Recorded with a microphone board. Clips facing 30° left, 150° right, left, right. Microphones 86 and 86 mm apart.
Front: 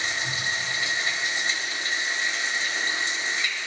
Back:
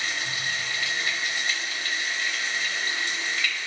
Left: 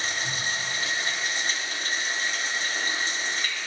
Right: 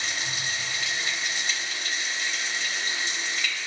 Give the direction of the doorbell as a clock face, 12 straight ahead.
No doorbell in this recording.